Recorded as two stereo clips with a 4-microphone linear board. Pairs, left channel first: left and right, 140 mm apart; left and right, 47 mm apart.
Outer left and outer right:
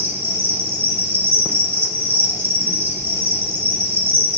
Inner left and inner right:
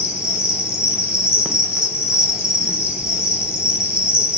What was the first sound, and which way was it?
An insect, 15° right (ahead or behind).